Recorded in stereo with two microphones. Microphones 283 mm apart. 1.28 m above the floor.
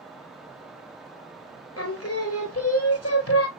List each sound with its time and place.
1.8 s singing: 55° left (ahead or behind), 0.9 m